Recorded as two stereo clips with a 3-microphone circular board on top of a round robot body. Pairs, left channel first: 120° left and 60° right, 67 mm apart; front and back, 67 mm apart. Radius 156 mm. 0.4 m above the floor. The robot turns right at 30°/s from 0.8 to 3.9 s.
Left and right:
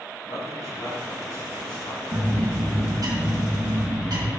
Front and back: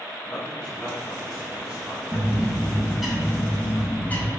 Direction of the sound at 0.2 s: 75° left.